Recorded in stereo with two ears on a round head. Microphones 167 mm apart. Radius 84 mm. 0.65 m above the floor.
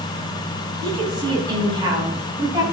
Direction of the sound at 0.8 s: 25° right (ahead or behind).